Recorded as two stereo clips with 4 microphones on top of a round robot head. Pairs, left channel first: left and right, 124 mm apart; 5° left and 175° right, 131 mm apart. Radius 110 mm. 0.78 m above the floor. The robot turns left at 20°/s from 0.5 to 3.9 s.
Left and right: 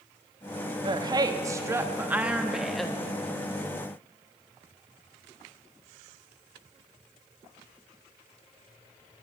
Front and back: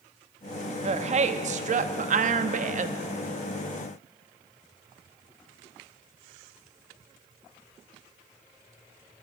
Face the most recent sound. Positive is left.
turn(degrees=155)